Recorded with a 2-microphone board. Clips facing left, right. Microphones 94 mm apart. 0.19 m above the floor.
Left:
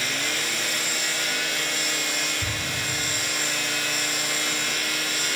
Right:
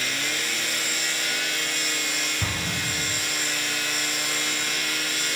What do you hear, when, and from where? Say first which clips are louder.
2.4 s an explosion: right 1 dB; 55° right (ahead or behind), 3.5 m